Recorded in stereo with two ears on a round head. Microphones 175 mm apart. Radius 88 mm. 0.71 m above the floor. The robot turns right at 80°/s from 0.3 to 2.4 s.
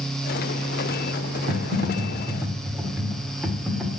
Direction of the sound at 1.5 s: 80° right.